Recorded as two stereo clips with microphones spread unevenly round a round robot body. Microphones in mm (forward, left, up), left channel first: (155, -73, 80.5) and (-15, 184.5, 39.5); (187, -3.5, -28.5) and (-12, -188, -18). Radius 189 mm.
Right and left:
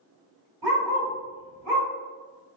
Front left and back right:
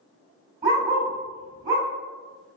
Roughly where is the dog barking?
Behind left.